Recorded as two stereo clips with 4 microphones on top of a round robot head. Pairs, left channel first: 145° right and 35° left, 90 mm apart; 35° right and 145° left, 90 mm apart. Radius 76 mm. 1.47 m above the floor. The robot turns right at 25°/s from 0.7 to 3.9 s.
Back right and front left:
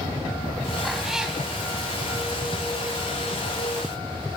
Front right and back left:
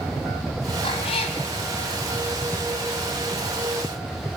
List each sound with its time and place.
0.8 s a cat meowing: 60° right, 2.5 m; by 1.4 s 45° right, 2.5 m